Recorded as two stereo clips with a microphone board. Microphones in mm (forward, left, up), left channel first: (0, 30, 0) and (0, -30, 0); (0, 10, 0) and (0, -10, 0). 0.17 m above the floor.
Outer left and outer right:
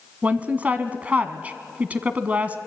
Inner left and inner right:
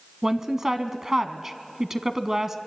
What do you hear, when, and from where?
0.2 s a woman speaking: 25° right (ahead or behind), 1.1 m